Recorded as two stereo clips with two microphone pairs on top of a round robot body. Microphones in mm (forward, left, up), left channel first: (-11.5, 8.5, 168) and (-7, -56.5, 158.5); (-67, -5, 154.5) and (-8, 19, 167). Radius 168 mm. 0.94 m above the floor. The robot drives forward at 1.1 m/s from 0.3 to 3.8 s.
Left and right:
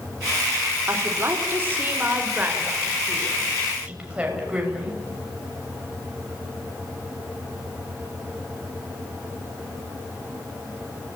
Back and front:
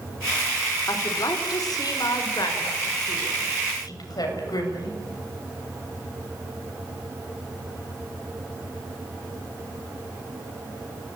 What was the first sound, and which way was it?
A woman speaking, 140° right.